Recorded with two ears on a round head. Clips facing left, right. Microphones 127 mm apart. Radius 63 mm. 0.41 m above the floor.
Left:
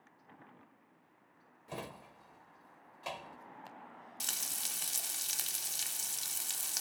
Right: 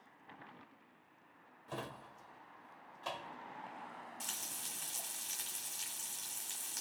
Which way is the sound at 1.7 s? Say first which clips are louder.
Even; 15° left (ahead or behind).